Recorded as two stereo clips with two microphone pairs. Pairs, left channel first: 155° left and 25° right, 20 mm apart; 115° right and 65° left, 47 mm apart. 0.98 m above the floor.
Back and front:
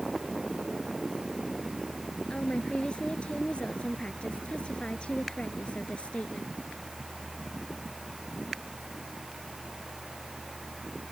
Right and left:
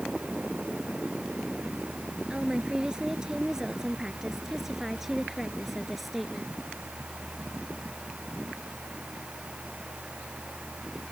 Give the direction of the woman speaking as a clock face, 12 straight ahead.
7 o'clock.